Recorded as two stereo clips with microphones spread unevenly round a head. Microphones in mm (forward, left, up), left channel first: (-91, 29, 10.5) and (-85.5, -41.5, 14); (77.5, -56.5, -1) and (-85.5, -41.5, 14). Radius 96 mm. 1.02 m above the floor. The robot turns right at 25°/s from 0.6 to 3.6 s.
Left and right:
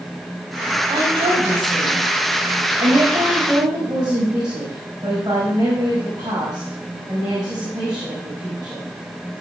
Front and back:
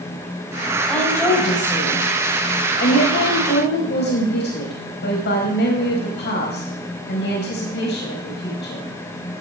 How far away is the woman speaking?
About 4.5 m.